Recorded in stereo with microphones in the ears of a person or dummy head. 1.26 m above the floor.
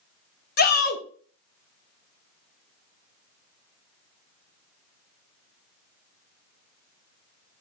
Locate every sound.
0.6 s a shout: 45° left (ahead or behind), 0.7 m